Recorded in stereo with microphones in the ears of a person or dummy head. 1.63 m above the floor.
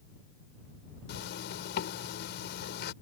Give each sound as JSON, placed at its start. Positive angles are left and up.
{"t": 1.1, "sound": "a zipper", "side_deg": 65}